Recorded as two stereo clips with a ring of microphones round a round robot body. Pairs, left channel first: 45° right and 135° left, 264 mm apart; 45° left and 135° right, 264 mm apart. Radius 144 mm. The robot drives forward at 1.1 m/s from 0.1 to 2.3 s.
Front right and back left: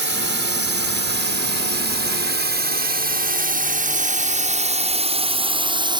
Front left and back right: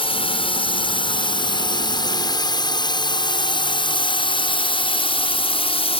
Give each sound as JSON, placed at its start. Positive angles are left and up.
{"t": 0.0, "sound": "a drone", "azimuth_deg": 110}